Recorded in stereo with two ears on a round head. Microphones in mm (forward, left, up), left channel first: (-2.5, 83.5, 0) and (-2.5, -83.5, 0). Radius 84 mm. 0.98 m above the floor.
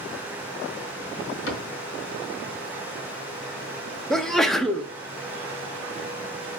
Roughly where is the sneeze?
Centre.